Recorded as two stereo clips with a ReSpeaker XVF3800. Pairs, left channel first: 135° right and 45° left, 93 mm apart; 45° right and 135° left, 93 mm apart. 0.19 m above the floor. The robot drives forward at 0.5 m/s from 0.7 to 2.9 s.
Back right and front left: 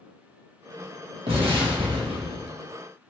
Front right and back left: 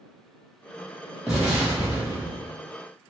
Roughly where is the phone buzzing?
I don't hear a phone buzzing.